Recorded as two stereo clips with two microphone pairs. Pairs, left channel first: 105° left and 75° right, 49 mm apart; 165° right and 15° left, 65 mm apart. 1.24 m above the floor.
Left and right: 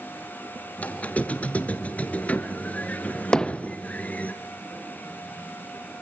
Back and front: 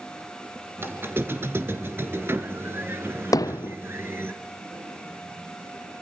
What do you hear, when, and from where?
0.8 s a squeak: 55° left, 1.8 m
3.3 s hammering: 175° left, 0.6 m